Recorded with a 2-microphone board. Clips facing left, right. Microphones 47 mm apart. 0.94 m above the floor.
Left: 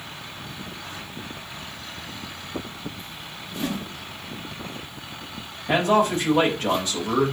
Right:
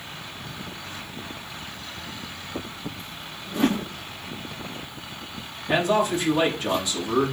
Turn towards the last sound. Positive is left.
turn(degrees=40)  # may be behind; listen again after turning